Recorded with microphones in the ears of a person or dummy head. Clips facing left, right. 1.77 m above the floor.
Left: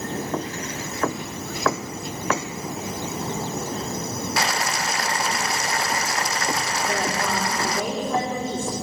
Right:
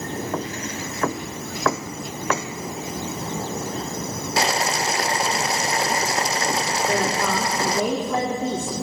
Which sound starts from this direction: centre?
Boiling, at 4.4 s.